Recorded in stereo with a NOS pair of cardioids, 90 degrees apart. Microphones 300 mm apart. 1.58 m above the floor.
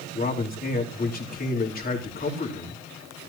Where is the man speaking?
30° left, 4 m.